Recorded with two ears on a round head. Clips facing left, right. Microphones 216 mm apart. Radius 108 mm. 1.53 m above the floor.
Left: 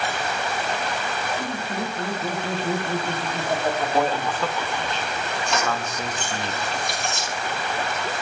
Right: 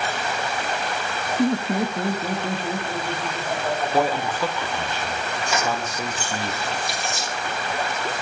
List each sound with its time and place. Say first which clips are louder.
1.4 s laughter: right 8 dB; 50° right (ahead or behind), 0.9 m; by 4.9 s 35° left (ahead or behind), 2.5 m
3.9 s a man speaking: right 1 dB; 10° right (ahead or behind), 0.5 m
5.5 s keys jangling: right 1 dB; 5° right (ahead or behind), 1.3 m